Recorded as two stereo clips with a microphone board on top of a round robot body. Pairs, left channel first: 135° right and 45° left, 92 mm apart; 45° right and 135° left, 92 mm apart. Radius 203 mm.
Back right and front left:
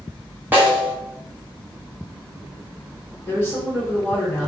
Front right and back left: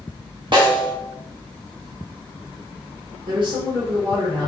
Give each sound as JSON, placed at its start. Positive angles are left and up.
{"t": 0.5, "sound": "a snare drum", "azimuth_deg": 115, "distance_m": 2.0}
{"t": 3.3, "sound": "a woman speaking", "azimuth_deg": 160, "distance_m": 1.5}